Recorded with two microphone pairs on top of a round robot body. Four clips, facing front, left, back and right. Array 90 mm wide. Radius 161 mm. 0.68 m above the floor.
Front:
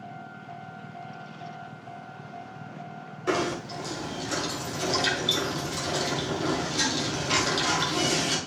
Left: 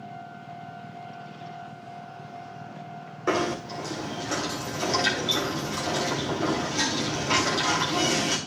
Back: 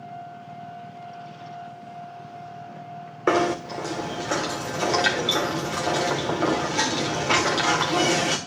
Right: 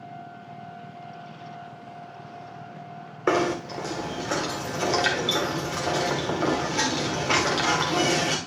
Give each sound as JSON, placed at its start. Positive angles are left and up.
{"t": 3.3, "sound": "knocking", "azimuth_deg": -155, "distance_m": 1.9}